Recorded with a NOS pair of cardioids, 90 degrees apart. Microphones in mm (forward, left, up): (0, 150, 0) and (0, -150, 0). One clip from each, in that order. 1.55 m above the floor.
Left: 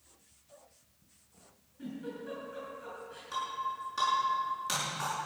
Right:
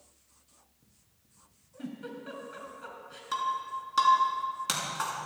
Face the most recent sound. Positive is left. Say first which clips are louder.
# right 4 dB
turn(degrees=-60)